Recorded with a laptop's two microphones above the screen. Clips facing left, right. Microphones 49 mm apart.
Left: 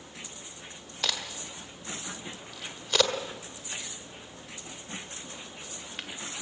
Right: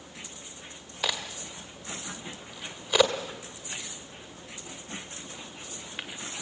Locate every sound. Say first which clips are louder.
1.0 s a crack: right 1 dB; 10° right (ahead or behind), 1.5 m